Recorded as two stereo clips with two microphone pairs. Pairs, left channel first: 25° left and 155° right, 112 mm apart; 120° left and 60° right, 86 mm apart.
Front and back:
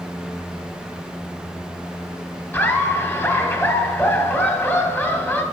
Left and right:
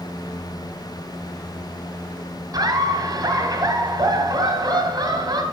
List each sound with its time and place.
2.5 s laughter: 45° right, 1.8 m